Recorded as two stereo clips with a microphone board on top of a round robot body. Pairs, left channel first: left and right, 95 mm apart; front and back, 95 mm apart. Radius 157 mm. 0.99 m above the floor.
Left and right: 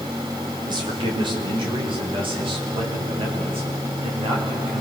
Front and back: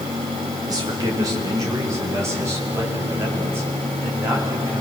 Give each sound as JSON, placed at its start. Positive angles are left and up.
{"t": 0.7, "sound": "a man speaking", "azimuth_deg": -130, "distance_m": 4.5}